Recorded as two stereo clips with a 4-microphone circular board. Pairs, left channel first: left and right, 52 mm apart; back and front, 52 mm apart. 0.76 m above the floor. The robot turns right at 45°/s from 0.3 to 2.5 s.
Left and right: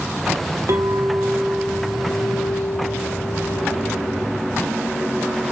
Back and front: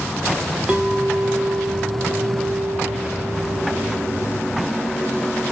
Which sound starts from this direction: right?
A clink, at 0.7 s.